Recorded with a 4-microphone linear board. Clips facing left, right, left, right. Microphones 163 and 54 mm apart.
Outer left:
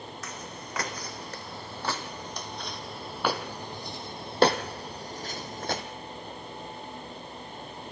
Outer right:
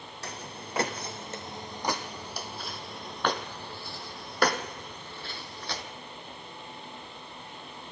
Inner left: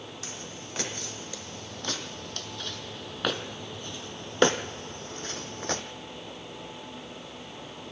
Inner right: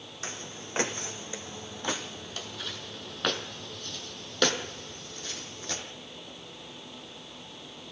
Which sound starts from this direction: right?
Footsteps, at 0.2 s.